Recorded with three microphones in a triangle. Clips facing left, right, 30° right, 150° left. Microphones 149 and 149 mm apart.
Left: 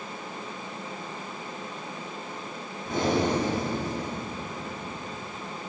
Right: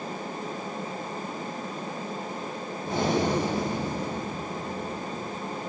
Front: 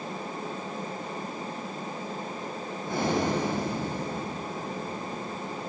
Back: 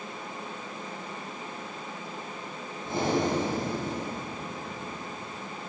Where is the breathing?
145° right, 5 m.